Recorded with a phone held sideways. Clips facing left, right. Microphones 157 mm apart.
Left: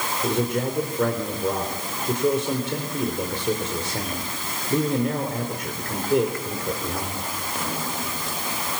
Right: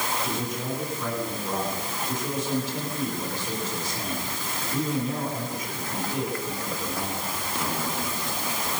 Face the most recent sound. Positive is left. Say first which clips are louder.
# left 7 dB
turn(degrees=65)  # may be behind; listen again after turning